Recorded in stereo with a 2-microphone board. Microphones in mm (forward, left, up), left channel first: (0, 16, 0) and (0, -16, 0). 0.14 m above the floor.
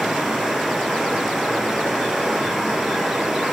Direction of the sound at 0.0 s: 5° right (ahead or behind).